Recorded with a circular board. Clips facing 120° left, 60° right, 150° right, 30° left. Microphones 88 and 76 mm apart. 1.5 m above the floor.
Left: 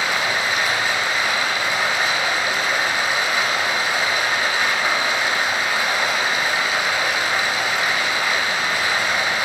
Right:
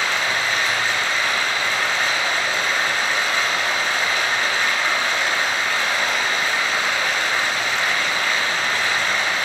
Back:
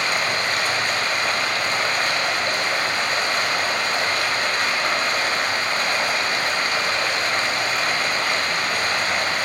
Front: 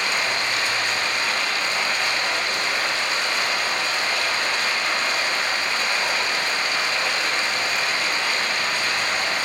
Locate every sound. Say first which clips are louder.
0.0 s running water: left 1 dB, back 2 dB; 165° right, 1.9 m